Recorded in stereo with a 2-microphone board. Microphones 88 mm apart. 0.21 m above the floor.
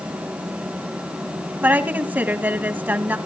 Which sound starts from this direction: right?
A woman speaking, at 1.6 s.